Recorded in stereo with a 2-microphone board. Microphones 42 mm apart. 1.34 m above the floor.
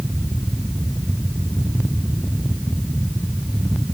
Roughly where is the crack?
I don't hear a crack.